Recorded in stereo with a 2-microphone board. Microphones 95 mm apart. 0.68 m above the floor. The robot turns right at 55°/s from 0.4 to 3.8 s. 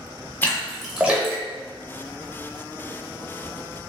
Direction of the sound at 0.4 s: 25° left (ahead or behind).